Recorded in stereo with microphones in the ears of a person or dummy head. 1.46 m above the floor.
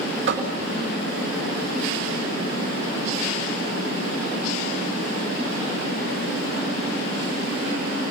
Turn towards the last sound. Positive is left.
turn(degrees=-60)  # may be behind; listen again after turning